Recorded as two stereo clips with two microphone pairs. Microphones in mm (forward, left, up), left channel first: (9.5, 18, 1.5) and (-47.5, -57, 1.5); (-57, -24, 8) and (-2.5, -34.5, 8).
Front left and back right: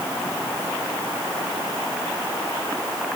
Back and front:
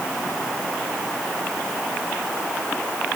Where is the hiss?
No hiss in this recording.